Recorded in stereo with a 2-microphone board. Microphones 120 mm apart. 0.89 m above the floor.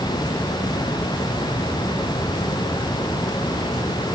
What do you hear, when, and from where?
Only background noise.